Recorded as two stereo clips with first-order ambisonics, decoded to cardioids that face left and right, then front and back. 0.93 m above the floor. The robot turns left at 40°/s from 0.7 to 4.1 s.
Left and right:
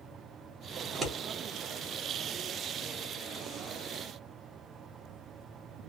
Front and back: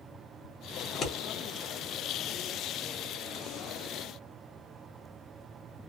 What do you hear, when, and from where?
0.8 s scissors: 50° right, 1.0 m; by 1.1 s 60° right, 1.0 m